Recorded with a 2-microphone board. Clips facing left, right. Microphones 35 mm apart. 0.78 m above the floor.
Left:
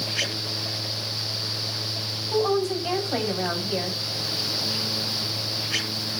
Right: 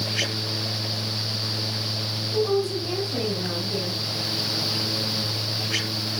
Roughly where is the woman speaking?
Left.